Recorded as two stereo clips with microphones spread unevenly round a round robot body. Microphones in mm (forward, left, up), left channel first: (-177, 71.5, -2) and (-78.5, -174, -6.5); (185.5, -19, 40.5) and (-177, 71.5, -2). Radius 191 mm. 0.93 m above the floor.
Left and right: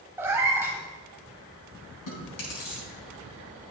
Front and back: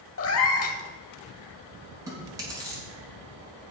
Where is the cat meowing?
10° left, 0.9 m.